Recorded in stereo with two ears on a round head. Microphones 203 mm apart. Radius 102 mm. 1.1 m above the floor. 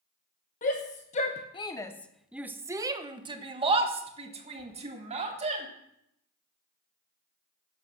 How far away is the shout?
About 1.1 m.